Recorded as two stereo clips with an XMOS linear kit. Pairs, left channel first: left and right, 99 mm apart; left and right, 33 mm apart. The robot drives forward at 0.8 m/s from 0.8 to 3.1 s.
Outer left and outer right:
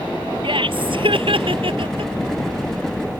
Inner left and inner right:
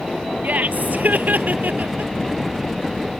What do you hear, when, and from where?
0.4 s laughter: 65° right (ahead or behind); by 2.1 s 70° right (ahead or behind)